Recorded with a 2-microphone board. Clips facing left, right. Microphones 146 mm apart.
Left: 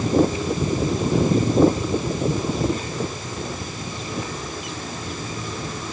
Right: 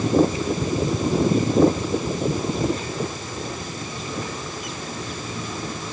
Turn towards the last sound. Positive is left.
No sound to turn to.